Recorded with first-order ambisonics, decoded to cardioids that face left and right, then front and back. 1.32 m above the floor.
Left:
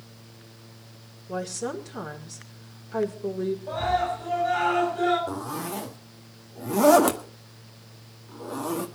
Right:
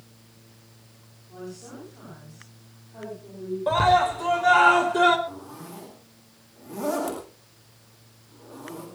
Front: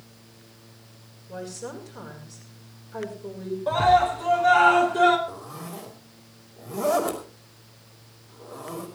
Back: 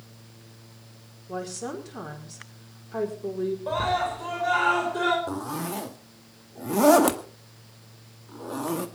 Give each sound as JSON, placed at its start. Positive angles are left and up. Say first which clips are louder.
{"t": 1.3, "sound": "a woman speaking", "louder": "left 10 dB, back 3 dB", "azimuth_deg": 125, "distance_m": 5.0}
{"t": 3.7, "sound": "a scream", "louder": "right 8 dB, front 9 dB", "azimuth_deg": -85, "distance_m": 4.0}
{"t": 5.3, "sound": "a zipper", "louder": "left 8 dB, back 6 dB", "azimuth_deg": 140, "distance_m": 1.9}